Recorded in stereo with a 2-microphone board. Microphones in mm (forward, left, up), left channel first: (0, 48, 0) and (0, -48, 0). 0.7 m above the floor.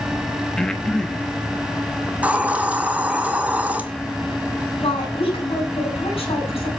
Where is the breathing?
5° left (ahead or behind), 1.1 m.